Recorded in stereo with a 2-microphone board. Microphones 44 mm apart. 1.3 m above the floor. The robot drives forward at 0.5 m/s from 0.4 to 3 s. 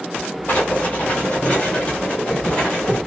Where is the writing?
35° left (ahead or behind), 1.3 m; by 3.0 s 20° left (ahead or behind), 2 m.